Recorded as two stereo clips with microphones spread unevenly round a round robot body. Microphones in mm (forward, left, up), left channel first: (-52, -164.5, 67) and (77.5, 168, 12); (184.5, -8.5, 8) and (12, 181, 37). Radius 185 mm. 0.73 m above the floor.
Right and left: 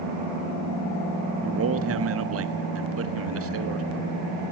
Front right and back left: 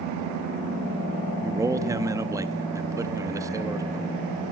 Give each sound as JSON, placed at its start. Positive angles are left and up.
{"t": 1.4, "sound": "a man speaking", "azimuth_deg": 50, "distance_m": 1.5}